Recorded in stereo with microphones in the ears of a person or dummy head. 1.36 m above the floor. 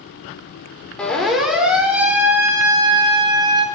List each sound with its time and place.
1.0 s a siren: centre (ahead or behind), 4 m; by 3.6 s 35° right (ahead or behind), 3.5 m